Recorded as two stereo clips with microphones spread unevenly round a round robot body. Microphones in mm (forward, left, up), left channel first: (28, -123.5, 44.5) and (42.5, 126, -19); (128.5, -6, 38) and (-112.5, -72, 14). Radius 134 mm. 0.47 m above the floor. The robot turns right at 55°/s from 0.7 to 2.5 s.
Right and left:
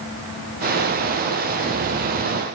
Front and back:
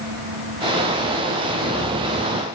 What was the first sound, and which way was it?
Only background noise.